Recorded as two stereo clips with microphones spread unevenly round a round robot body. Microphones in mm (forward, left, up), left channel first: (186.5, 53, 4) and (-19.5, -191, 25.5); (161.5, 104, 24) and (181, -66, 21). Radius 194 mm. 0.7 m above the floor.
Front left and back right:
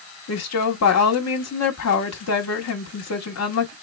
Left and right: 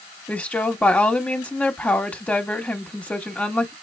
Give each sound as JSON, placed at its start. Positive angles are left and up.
{"t": 0.3, "sound": "a woman speaking", "azimuth_deg": 15, "distance_m": 1.5}